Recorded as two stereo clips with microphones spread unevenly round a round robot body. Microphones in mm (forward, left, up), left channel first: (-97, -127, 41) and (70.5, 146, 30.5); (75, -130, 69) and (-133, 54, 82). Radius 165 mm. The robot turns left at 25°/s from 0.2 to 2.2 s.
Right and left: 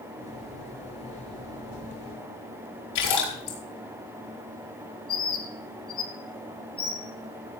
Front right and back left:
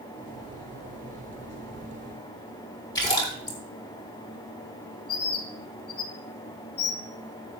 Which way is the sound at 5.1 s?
55° right.